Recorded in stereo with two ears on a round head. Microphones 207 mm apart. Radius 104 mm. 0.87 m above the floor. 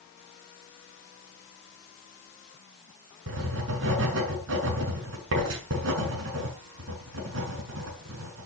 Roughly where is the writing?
Right.